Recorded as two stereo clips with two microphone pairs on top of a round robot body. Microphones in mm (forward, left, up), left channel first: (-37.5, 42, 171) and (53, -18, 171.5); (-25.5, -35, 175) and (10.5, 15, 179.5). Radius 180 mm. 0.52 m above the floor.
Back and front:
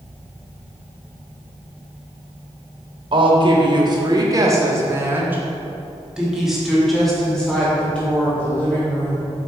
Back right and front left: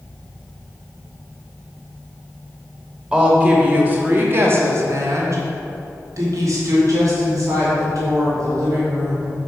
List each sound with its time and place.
3.1 s a woman speaking: 20° right, 1.7 m; by 9.5 s 75° left, 3 m